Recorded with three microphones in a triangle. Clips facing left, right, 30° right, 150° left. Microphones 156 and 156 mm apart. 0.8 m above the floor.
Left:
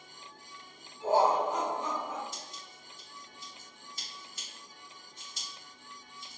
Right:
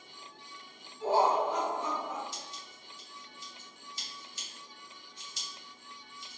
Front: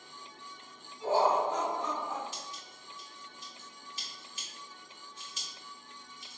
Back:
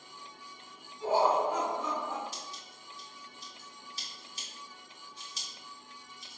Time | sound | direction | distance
1.0 | laughter | 80° left | 1.9 m
2.3 | scissors | 105° left | 1.4 m